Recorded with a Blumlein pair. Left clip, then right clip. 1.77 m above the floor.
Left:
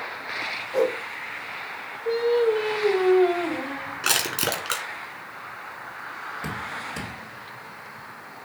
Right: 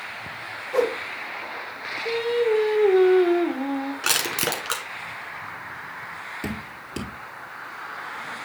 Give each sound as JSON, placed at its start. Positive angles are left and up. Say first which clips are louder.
{"t": 0.7, "sound": "a whoosh", "louder": "right 1 dB", "azimuth_deg": -35, "distance_m": 1.8}
{"t": 2.0, "sound": "singing", "louder": "left 1 dB", "azimuth_deg": -50, "distance_m": 3.0}
{"t": 4.0, "sound": "crushing", "louder": "even", "azimuth_deg": -10, "distance_m": 1.7}
{"t": 6.4, "sound": "dripping", "louder": "left 3 dB", "azimuth_deg": -60, "distance_m": 3.0}